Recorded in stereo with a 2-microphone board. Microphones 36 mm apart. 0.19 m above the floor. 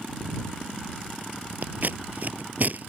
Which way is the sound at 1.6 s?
55° right (ahead or behind).